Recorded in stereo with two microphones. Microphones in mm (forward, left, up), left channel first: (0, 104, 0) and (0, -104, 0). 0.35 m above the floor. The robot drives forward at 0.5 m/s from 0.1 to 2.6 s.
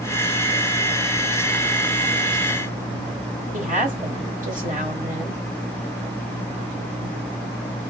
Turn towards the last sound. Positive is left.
turn(degrees=-40)  # may be behind; listen again after turning